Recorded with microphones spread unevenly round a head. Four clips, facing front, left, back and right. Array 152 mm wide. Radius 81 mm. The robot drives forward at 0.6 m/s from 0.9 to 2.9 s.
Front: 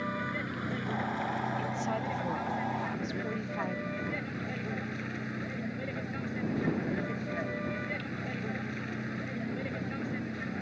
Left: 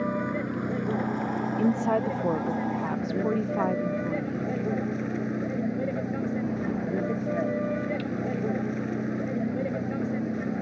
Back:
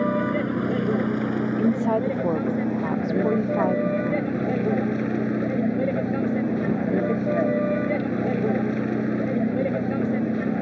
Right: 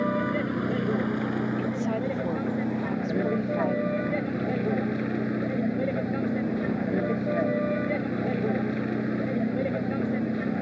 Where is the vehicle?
170° right.